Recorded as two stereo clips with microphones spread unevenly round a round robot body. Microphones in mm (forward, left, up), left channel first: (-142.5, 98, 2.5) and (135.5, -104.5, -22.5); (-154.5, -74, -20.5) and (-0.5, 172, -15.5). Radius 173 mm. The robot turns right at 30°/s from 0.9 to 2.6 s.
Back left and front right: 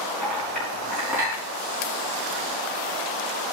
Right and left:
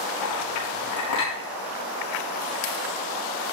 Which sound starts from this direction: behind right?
A clink, at 0.2 s.